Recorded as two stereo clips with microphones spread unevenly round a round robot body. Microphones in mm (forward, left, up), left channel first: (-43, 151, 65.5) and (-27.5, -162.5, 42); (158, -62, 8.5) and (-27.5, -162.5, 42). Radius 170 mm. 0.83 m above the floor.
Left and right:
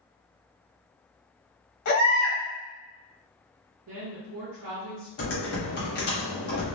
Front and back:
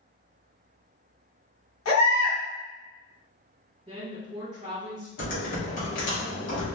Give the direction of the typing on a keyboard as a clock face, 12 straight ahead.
11 o'clock.